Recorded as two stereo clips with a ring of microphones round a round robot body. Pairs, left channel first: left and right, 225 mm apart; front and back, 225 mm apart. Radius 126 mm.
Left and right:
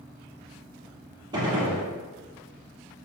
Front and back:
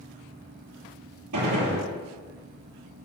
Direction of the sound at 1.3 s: 165° right.